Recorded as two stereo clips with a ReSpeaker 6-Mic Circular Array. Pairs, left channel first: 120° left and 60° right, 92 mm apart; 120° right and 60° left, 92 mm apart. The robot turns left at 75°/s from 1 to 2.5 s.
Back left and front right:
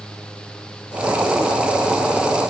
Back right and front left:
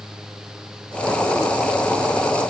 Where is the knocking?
I don't hear knocking.